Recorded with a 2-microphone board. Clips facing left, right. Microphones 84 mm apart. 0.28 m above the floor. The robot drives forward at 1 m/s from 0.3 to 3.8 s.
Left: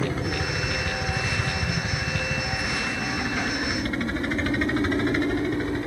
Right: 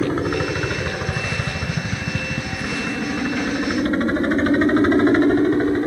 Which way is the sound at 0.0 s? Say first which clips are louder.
Right 7 dB; 45° right (ahead or behind).